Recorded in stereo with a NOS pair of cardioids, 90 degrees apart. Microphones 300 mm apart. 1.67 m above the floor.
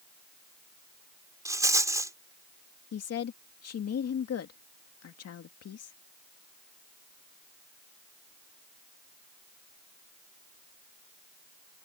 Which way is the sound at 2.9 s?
55° left.